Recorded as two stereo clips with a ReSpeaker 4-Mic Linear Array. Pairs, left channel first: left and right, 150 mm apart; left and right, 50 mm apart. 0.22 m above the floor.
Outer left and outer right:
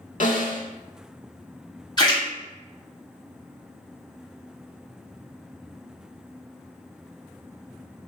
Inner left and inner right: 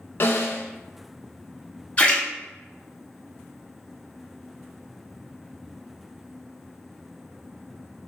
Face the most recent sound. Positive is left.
turn(degrees=30)  # may be behind; listen again after turning